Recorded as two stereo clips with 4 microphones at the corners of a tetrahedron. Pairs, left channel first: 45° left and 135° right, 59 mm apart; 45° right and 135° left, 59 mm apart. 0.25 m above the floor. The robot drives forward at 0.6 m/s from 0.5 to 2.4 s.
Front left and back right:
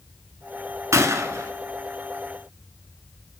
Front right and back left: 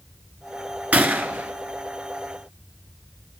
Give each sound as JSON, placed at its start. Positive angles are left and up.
{"t": 0.9, "sound": "a gunshot", "azimuth_deg": -165, "distance_m": 0.8}